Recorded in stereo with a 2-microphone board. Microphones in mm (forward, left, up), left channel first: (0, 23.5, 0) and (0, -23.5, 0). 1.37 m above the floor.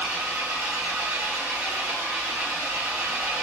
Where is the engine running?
80° right, 1.8 m.